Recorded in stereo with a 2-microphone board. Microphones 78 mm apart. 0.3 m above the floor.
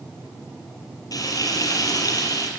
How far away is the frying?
About 5.5 m.